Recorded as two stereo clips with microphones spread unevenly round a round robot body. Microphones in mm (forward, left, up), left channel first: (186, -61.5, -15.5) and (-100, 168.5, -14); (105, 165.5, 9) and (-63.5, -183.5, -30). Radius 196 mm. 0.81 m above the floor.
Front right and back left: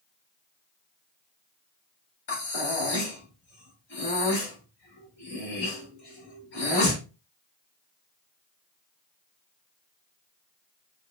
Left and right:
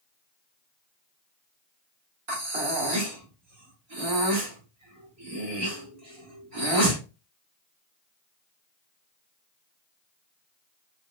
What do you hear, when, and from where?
2.3 s breathing: 95° right, 1.4 m